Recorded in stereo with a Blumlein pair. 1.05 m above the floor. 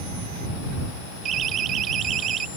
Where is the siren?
25° right.